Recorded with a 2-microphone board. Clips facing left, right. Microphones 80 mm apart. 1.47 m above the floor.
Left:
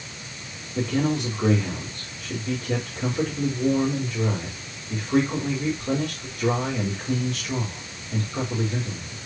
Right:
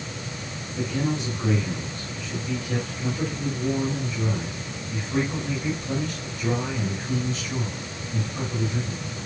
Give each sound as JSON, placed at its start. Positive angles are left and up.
{"t": 0.8, "sound": "a man speaking", "side_deg": 60, "distance_m": 4.5}